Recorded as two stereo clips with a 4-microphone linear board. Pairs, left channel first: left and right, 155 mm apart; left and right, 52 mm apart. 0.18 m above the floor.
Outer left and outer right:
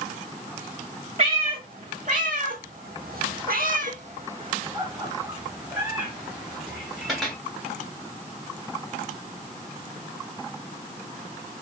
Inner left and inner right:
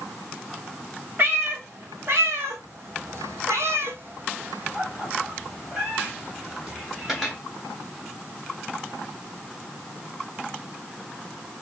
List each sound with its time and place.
1.2 s a cat meowing: 45° right (ahead or behind), 2.5 m; by 7.3 s centre (ahead or behind), 3.5 m